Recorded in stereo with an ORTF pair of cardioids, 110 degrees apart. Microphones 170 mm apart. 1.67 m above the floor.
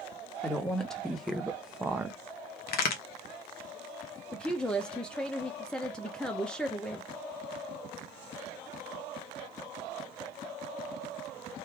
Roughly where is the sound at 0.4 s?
Ahead.